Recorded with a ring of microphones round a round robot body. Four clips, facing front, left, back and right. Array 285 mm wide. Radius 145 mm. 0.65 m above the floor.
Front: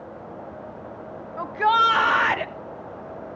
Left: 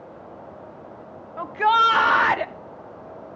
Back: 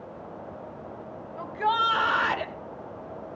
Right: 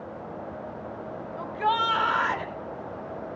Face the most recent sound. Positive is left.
turn(degrees=80)